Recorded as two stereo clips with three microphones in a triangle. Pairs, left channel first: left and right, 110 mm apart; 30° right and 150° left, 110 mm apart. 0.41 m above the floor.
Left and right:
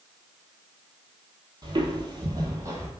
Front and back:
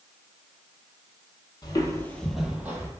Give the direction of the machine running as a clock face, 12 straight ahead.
No machine running in this recording.